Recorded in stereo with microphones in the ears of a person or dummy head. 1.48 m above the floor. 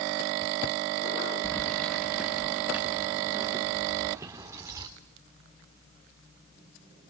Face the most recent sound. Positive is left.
turn(degrees=-20)  # may be behind; listen again after turning